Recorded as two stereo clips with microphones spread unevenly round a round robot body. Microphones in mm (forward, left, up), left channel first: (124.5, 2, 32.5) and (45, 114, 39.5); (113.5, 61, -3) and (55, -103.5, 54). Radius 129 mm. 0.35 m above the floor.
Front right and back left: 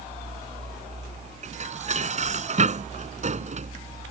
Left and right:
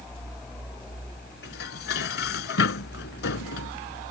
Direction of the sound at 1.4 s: 95° left.